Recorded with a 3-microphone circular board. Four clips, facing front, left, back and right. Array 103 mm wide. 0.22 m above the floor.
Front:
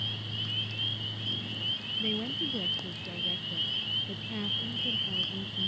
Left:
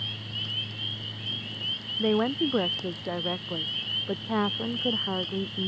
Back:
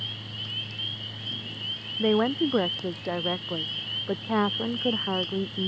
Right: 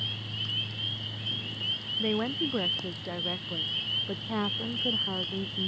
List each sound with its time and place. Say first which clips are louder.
2.0 s a woman speaking: left 5 dB, back 13 dB; 150° left; by 5.7 s 155° left